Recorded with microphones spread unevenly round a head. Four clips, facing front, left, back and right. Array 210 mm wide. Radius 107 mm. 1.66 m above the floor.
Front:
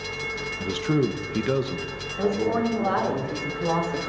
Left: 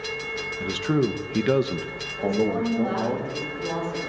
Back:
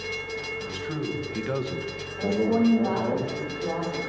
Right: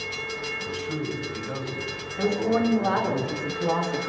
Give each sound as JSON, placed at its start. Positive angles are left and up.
{"t": 0.6, "sound": "a man speaking", "azimuth_deg": 35, "distance_m": 1.4}
{"t": 2.2, "sound": "a woman speaking", "azimuth_deg": -45, "distance_m": 6.0}